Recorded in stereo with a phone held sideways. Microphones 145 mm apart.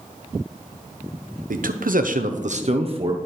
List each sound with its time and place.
1.5 s a man speaking: 70° right (ahead or behind), 0.9 m; by 3.2 s 35° right (ahead or behind), 1.0 m